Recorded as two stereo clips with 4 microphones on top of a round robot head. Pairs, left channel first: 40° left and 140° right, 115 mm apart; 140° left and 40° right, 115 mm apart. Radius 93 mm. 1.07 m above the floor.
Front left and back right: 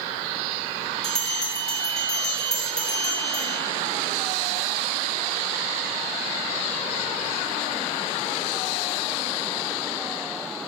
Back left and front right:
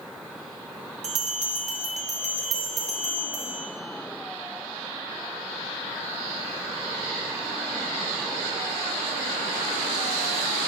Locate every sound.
1.0 s a bell: 45° right, 1.0 m